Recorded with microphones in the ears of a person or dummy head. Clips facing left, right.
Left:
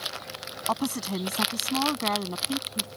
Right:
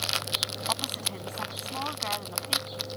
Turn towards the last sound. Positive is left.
turn(degrees=60)  # may be behind; listen again after turning